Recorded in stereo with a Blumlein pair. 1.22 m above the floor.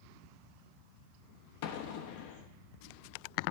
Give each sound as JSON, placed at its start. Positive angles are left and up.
{"t": 1.6, "sound": "an explosion", "azimuth_deg": 50, "distance_m": 1.1}